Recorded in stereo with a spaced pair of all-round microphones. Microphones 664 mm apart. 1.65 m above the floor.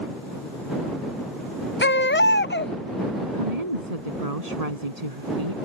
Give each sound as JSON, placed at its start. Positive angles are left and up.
{"t": 1.8, "sound": "a baby crying", "side_deg": 20}
{"t": 3.3, "sound": "a woman speaking", "side_deg": -65}